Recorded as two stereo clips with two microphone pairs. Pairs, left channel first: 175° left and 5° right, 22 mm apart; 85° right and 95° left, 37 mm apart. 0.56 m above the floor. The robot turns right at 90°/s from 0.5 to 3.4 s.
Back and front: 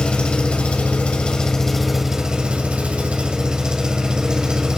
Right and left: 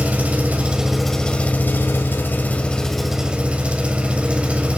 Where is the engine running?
145° left, 1.4 m; by 4.8 s 45° left, 1.4 m.